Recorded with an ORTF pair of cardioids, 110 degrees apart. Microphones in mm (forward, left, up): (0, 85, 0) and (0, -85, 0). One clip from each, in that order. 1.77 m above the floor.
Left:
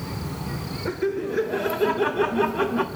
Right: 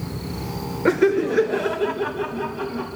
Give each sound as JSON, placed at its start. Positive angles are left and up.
{"t": 0.8, "sound": "laughter", "azimuth_deg": -55, "distance_m": 0.6}